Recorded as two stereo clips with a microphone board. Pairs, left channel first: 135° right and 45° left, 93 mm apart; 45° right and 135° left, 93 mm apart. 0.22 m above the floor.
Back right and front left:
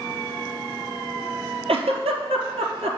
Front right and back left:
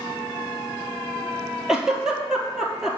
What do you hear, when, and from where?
1.7 s a giggle: 50° left, 0.9 m